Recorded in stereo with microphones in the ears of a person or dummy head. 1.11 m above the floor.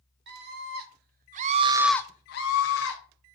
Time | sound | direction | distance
0.3 | a scream | 60° right (ahead or behind) | 2.5 m